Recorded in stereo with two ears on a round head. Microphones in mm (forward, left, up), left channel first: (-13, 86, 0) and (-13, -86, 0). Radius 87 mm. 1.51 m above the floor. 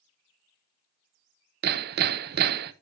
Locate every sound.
1.6 s hammering: 50° right (ahead or behind), 0.6 m